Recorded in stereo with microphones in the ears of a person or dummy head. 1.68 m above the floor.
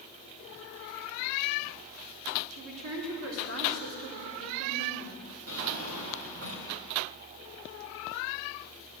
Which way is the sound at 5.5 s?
60° right (ahead or behind).